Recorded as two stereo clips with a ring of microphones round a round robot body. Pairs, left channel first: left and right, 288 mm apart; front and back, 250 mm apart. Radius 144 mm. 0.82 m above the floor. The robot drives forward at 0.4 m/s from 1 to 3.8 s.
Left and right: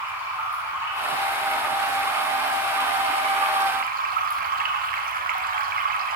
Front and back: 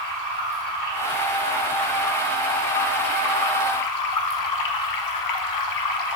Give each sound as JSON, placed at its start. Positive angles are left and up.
{"t": 0.0, "sound": "running water", "azimuth_deg": -10, "distance_m": 1.6}